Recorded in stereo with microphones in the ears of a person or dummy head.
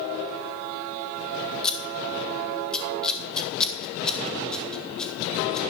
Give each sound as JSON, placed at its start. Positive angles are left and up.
{"t": 1.6, "sound": "scissors", "side_deg": 0, "distance_m": 1.2}